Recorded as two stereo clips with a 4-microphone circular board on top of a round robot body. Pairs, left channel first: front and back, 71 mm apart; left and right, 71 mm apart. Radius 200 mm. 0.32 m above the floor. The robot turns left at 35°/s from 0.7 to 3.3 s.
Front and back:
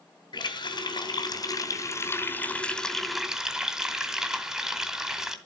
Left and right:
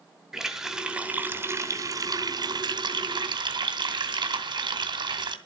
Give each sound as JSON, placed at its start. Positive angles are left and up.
{"t": 0.3, "sound": "a running tap", "azimuth_deg": -5, "distance_m": 2.5}